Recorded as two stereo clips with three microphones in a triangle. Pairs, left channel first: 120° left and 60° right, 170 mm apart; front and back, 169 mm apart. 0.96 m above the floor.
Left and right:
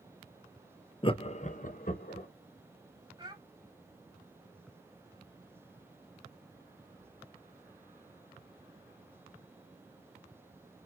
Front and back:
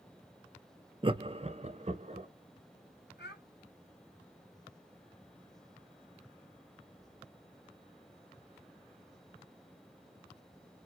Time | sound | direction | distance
1.0 | laughter | 150° left | 0.5 m
3.2 | a child speaking | straight ahead | 2.5 m